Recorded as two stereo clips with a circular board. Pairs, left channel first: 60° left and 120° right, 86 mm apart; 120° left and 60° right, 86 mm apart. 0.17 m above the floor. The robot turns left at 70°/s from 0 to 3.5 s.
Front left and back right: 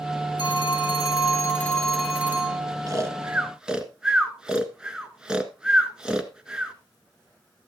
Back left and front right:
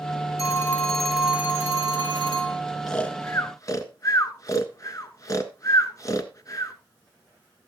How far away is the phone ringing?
About 2 m.